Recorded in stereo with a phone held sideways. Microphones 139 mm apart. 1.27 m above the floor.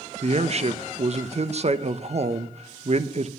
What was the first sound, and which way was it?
A man speaking, 50° right (ahead or behind).